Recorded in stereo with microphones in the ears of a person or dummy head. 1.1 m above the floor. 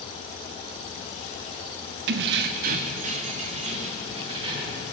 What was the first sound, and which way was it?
Keys jangling, 60° right (ahead or behind).